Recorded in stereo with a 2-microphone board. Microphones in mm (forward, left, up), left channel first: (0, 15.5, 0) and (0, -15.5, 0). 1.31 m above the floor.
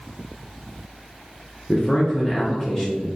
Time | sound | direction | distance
1.7 | a man speaking | 20° left (ahead or behind) | 0.6 m